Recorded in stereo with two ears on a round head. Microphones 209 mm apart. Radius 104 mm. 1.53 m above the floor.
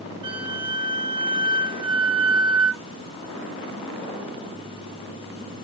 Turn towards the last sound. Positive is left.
turn(degrees=-20)  # may be behind; listen again after turning